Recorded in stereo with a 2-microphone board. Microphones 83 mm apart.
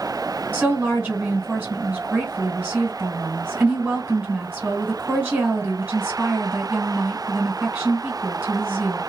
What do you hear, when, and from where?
0.5 s a woman speaking: 20° right (ahead or behind), 1.5 m